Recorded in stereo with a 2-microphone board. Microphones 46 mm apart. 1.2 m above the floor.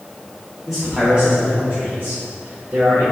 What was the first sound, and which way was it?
A man speaking, centre (ahead or behind).